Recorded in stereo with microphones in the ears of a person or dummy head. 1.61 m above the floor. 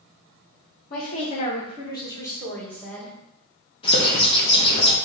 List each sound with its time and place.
0.9 s a woman speaking: 45° left (ahead or behind), 1.2 m; by 3.1 s centre (ahead or behind), 1.5 m
3.8 s a bird: 35° left (ahead or behind), 1.3 m